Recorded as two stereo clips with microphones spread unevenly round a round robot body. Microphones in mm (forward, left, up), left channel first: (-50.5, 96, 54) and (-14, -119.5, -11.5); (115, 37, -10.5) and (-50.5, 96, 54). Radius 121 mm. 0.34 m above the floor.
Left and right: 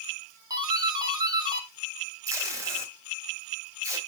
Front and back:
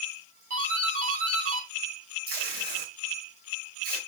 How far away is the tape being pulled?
About 2 m.